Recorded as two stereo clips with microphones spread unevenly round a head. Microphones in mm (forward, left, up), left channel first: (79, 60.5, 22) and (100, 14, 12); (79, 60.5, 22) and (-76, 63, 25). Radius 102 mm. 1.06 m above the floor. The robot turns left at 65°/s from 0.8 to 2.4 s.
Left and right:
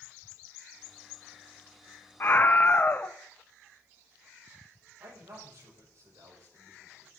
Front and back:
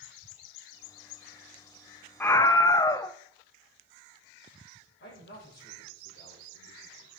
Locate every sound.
2.2 s a scream: 70° left, 0.8 m; by 3.1 s 60° left, 0.8 m
5.0 s a man speaking: 45° right, 6 m